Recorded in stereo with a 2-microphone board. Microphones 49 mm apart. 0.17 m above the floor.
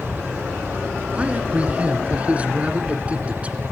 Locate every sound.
1.1 s a man speaking: 25° right (ahead or behind), 1.9 m